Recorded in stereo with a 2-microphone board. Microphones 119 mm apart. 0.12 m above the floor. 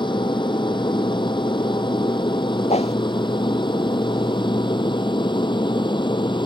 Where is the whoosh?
65° left (ahead or behind).